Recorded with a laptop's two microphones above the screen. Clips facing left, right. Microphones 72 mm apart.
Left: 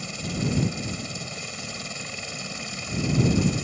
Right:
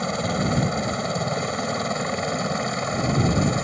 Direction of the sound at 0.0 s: 55° right (ahead or behind).